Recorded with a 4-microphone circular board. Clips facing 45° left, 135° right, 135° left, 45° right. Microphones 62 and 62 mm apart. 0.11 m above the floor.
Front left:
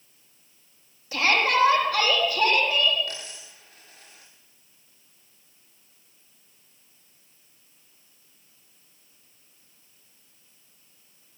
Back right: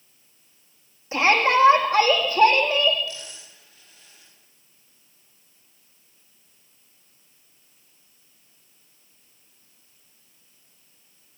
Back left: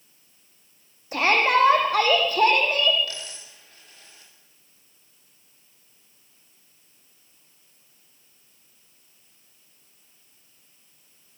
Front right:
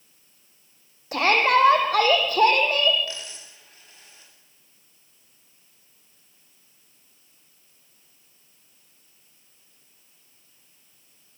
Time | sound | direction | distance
1.1 | a shout | 70° right | 6.5 m
3.1 | a dropped coin | 15° left | 9.5 m